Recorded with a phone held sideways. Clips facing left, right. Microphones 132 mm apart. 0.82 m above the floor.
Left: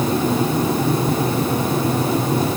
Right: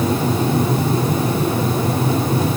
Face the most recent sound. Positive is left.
No sound to turn to.